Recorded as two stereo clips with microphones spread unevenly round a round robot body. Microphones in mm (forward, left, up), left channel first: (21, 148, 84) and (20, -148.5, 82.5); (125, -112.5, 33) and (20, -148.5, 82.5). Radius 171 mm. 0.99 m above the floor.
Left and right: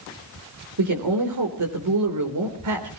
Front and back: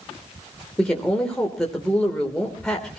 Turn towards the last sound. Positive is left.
turn(degrees=-65)